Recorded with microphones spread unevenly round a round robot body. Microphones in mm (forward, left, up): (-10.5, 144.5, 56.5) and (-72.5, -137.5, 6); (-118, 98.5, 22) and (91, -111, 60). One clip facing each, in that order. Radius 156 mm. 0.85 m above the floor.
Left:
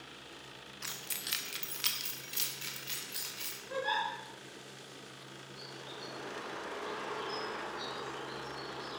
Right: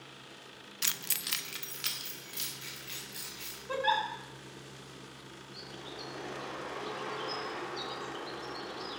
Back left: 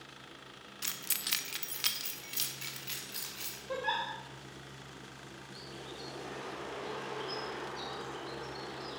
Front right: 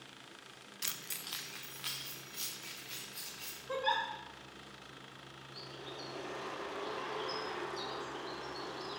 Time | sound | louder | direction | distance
0.8 | keys jangling | right 3 dB, back left 3 dB | 130° right | 0.7 m
3.7 | a giggle | right 3 dB, even | 105° right | 3.5 m
5.5 | a bird | right 3 dB, even | 125° right | 3 m